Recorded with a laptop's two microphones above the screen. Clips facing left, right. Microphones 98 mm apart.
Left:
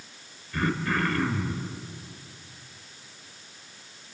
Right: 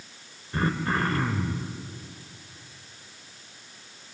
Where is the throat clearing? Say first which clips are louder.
Right 1 dB; 30° right (ahead or behind), 2 m.